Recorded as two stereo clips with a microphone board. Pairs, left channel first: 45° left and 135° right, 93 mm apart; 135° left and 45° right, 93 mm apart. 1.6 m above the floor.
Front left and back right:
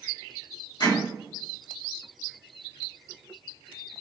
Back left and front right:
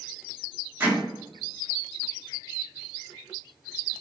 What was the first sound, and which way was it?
Hammering, 20° left.